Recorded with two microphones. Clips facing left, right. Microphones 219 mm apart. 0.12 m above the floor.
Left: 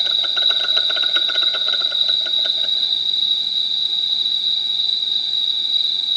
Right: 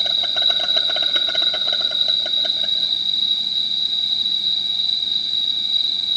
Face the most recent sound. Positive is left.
turn(degrees=-55)  # may be behind; listen again after turning